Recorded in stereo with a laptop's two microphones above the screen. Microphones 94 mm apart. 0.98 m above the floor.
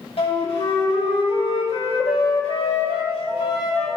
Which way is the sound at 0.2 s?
70° left (ahead or behind).